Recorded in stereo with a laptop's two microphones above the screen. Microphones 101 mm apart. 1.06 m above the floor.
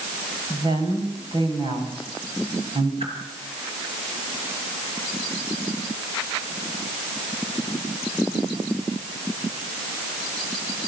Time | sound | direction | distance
0.5 | a woman speaking | 40° right (ahead or behind) | 5 m
3.0 | a whoosh | 70° right (ahead or behind) | 5.5 m